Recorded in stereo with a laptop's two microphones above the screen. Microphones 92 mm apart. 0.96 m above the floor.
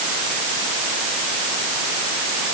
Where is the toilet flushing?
I don't hear a toilet flushing.